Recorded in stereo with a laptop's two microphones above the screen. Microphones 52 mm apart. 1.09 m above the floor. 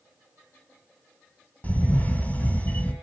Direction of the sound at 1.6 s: 35° left (ahead or behind).